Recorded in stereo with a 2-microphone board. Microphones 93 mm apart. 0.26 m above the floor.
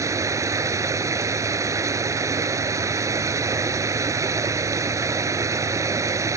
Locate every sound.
0.0 s running water: 35° right (ahead or behind)